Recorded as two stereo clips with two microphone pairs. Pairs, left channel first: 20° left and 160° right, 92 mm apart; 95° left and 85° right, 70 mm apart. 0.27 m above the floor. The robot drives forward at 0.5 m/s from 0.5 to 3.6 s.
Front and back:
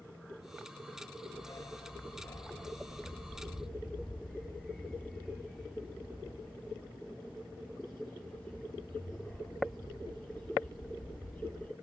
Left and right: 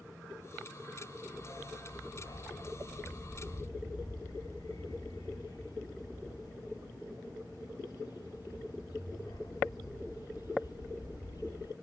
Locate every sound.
1.3 s a dog barking: 70° left, 1.6 m; by 11.7 s 110° left, 1.6 m